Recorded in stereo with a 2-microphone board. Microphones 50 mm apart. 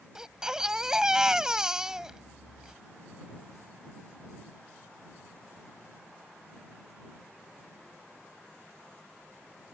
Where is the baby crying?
10° right (ahead or behind).